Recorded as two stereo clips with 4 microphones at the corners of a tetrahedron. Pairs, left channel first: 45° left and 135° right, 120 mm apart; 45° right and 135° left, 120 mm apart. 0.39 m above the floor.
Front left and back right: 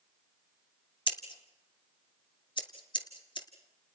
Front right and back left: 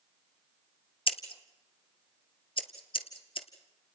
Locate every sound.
1.1 s scissors: 5° right, 1.6 m